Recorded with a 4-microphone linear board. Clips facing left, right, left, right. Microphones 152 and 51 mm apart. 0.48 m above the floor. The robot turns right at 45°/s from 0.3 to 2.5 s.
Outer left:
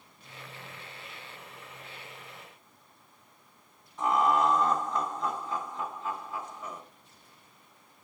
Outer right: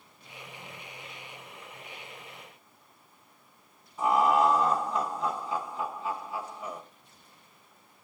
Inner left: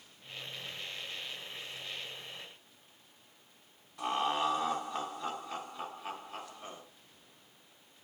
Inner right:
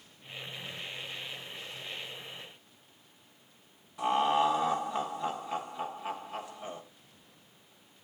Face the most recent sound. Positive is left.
turn(degrees=-10)  # may be behind; listen again after turning